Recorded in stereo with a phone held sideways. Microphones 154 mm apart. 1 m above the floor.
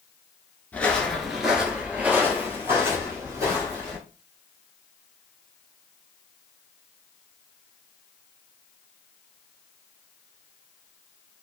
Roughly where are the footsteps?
Centre.